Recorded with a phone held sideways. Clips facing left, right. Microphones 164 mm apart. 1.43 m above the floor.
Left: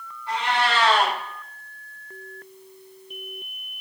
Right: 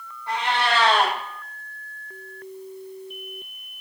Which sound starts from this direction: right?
A cat meowing, at 0.3 s.